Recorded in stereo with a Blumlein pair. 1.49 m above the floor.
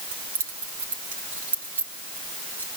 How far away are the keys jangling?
About 2.5 m.